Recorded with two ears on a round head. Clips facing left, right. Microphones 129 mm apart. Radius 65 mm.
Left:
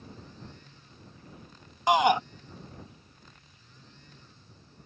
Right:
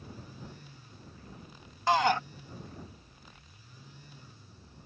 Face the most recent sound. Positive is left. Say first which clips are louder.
# left 4 dB
turn(degrees=15)  # may be behind; listen again after turning